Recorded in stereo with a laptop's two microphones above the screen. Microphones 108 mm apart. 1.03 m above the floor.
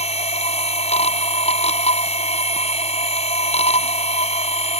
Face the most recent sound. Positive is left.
turn(degrees=70)  # may be behind; listen again after turning